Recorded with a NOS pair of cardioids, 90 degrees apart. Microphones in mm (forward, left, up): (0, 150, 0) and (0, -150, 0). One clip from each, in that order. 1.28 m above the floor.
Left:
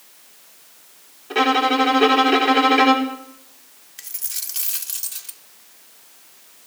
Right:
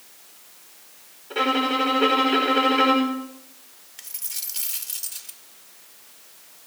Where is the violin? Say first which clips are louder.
Left 5 dB; 60° left, 5 m.